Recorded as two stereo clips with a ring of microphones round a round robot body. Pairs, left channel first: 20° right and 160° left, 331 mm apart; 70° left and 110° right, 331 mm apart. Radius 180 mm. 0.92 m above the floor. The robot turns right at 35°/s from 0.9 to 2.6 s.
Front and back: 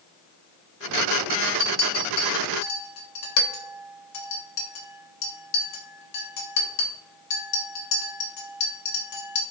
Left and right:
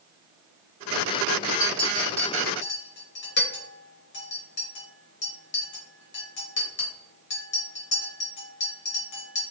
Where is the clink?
25° right, 1.0 m; by 9.4 s 10° left, 1.0 m.